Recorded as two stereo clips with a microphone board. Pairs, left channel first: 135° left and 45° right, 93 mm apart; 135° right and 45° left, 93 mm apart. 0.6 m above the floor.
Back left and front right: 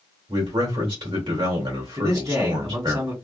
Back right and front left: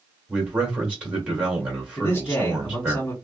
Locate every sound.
0.3 s a man speaking: 30° right, 2 m
2.0 s a man speaking: 80° right, 1.8 m